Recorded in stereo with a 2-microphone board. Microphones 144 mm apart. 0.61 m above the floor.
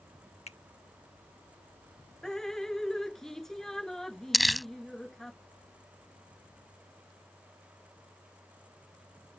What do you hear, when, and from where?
0.5 s a finger snap: 50° left (ahead or behind)
2.2 s dripping: 5° left (ahead or behind)
4.3 s crumpling: centre (ahead or behind)